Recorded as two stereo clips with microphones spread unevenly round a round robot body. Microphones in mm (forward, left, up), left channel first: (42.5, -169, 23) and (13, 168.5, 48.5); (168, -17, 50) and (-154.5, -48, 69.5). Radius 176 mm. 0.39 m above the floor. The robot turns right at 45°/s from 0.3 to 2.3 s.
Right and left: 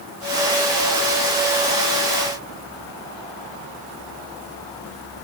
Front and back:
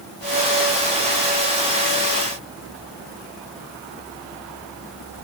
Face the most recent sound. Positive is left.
No sound to turn to.